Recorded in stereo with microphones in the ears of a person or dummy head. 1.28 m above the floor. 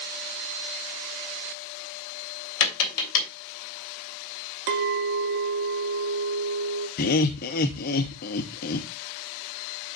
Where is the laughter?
50° left (ahead or behind), 0.6 m.